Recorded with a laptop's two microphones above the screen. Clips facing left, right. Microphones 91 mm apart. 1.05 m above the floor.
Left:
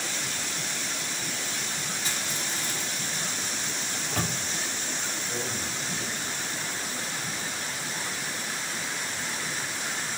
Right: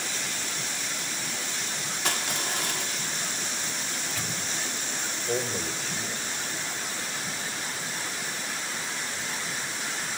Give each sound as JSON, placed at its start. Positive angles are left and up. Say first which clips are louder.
{"t": 2.0, "sound": "crushing", "louder": "right 3 dB", "side_deg": -65, "distance_m": 3.0}
{"t": 3.9, "sound": "a microwave", "louder": "left 3 dB", "side_deg": 55, "distance_m": 2.5}
{"t": 5.3, "sound": "a man speaking", "louder": "right 8 dB", "side_deg": -75, "distance_m": 5.0}